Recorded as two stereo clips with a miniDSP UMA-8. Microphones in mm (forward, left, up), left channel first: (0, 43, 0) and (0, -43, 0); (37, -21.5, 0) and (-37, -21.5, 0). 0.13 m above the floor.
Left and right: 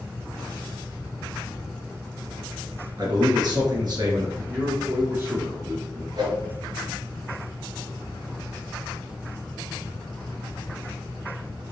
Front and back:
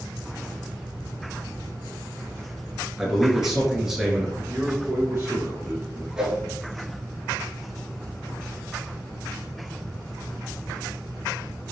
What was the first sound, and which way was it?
A man speaking, 95° right.